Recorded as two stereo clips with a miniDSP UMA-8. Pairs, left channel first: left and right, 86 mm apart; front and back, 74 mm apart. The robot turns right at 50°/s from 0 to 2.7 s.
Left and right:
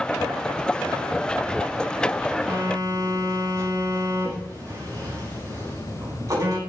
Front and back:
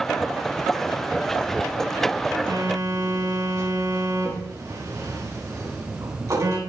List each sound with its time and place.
2.5 s a phone buzzing: 155° right, 9.5 m; by 6.6 s 140° right, 9.5 m